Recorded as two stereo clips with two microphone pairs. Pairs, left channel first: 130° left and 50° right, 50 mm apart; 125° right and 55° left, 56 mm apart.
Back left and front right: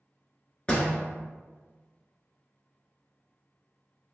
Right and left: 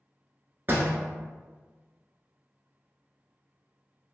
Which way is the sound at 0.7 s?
70° left.